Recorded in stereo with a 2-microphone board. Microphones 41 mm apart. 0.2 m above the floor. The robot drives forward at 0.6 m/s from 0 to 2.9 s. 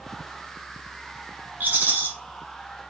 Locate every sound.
1.6 s a rattle: 45° right (ahead or behind), 1.2 m; by 2.1 s 40° right (ahead or behind), 1.4 m